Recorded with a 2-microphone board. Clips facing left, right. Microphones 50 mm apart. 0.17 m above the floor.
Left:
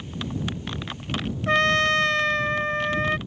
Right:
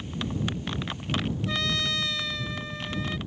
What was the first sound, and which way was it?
A trumpet, 50° left (ahead or behind).